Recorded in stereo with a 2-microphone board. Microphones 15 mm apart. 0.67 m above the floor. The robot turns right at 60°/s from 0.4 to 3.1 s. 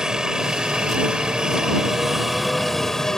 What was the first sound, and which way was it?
A helicopter, 130° right.